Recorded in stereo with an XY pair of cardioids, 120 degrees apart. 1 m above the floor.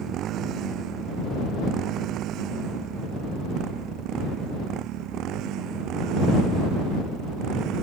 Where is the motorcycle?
65° right; by 7.8 s 80° right.